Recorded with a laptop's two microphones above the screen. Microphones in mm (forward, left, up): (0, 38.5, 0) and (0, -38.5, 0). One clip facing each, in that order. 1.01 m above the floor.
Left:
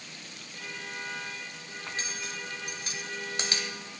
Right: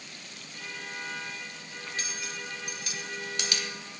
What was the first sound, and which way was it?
Cutlery clinking, 35° left (ahead or behind).